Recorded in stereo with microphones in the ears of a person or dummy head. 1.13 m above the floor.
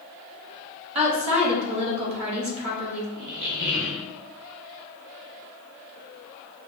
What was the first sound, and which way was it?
A woman speaking, 35° right (ahead or behind).